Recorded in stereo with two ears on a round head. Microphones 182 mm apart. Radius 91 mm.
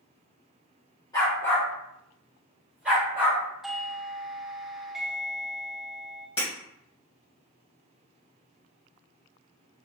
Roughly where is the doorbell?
Centre.